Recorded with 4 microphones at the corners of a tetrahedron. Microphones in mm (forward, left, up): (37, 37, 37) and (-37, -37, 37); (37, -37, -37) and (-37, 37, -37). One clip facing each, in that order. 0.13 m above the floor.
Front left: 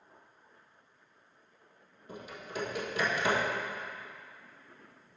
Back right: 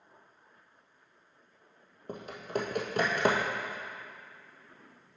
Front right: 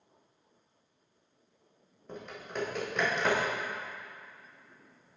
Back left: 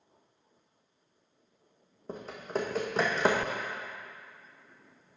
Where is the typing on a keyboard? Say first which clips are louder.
Back right 6 dB, back left 5 dB; 170° right, 1.5 m.